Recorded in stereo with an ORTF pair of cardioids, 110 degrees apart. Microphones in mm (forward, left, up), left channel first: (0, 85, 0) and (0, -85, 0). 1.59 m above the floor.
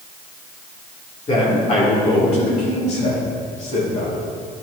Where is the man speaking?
35° left, 2.5 m; by 4.2 s 55° left, 4.5 m.